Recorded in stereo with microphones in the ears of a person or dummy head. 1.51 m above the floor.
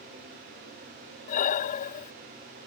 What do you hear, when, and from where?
1.3 s breathing: 45° left (ahead or behind)